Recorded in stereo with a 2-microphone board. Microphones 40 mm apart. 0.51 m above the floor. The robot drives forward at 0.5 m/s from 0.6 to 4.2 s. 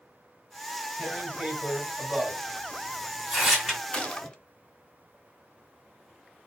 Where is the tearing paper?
10° right (ahead or behind), 2.5 m; by 3.8 s 15° right (ahead or behind), 1.6 m.